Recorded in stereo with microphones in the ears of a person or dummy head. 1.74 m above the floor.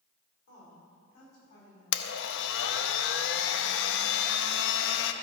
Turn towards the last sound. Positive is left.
turn(degrees=75)  # may be behind; listen again after turning